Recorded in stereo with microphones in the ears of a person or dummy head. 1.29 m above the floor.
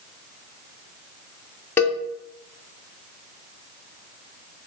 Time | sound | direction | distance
1.8 | a cowbell | 15° left (ahead or behind) | 0.8 m